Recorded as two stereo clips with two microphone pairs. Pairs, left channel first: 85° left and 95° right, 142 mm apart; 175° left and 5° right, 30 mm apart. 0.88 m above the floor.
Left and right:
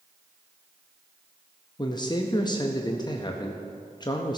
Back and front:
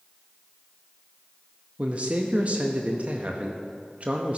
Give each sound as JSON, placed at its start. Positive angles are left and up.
{"t": 1.8, "sound": "a man speaking", "azimuth_deg": 30, "distance_m": 0.7}